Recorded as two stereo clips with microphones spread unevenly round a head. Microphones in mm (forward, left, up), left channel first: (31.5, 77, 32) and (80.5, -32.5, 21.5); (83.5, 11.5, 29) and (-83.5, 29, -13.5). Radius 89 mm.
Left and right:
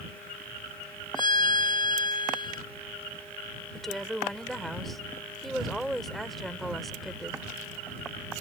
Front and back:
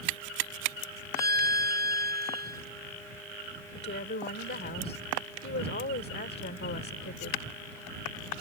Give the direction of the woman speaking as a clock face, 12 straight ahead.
11 o'clock.